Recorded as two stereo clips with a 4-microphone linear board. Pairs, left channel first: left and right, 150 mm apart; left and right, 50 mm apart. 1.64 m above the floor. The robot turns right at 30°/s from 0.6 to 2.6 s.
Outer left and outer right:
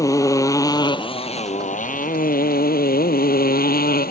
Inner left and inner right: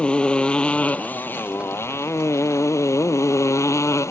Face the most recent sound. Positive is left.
turn(degrees=80)